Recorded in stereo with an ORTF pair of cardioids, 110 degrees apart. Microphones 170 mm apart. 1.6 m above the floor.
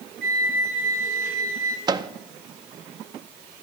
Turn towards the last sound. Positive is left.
turn(degrees=-25)